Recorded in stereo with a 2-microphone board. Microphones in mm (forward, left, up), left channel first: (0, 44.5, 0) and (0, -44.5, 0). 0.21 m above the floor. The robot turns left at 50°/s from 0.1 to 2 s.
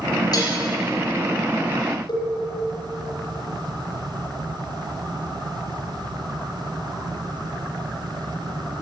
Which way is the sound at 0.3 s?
50° left (ahead or behind).